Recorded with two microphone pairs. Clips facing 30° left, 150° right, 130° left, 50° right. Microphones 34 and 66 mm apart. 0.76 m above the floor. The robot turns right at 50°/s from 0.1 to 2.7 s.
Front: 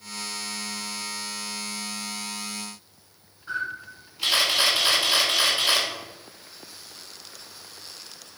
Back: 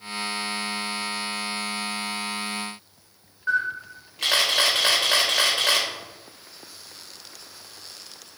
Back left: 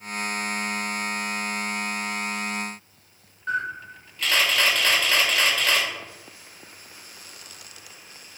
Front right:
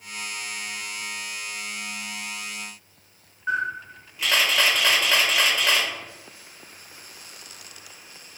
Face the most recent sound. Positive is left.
turn(degrees=-130)